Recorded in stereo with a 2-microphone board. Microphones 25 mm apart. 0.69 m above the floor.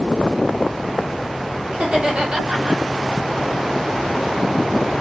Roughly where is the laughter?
Right.